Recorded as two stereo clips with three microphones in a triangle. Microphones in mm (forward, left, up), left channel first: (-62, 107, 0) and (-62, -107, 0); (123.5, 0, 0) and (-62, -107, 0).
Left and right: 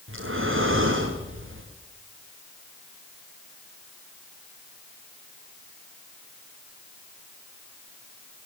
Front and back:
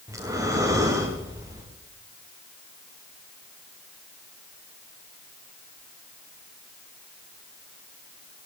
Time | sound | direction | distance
0.1 | breathing | 75° right | 6.5 m